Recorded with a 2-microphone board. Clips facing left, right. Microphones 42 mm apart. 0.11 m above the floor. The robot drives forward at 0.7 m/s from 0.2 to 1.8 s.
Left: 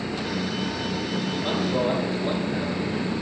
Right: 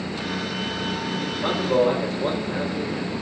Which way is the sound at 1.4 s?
70° right (ahead or behind).